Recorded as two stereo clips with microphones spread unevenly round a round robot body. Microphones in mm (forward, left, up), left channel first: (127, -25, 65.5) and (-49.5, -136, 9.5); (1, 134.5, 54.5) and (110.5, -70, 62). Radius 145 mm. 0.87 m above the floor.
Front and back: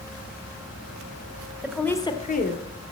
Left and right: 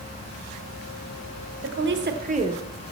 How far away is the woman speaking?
About 1.5 m.